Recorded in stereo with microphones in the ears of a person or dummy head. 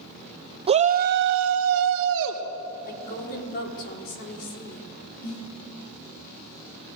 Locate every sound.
0.7 s a shout: 30° right (ahead or behind), 1.1 m; by 2.4 s 65° right (ahead or behind), 1.7 m
2.9 s a woman speaking: 55° left (ahead or behind), 5 m
5.2 s a snare drum: 75° left (ahead or behind), 6 m